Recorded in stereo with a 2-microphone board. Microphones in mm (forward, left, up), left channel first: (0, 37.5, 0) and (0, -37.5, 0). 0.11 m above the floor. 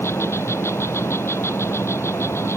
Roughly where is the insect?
Left.